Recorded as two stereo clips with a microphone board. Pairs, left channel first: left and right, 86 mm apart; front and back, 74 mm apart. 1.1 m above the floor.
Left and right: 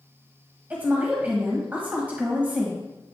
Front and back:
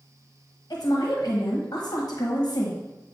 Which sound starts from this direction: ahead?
A woman speaking, at 0.7 s.